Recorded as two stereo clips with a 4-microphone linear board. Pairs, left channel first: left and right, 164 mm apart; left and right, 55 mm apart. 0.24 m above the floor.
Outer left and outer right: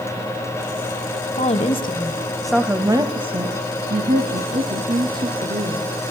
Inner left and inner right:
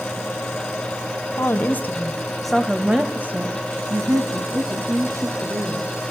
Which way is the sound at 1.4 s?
45° left (ahead or behind).